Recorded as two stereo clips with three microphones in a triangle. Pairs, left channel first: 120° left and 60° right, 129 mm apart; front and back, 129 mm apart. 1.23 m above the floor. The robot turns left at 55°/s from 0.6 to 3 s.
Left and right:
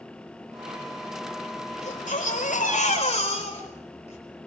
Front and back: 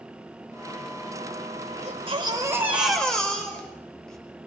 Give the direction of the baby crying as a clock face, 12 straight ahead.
7 o'clock.